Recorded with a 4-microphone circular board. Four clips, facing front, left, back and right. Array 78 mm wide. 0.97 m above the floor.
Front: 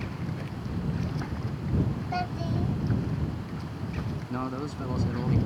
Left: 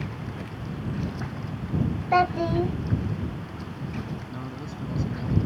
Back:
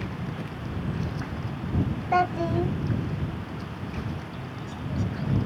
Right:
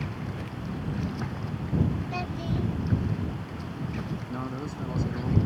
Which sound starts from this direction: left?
A child speaking, at 2.1 s.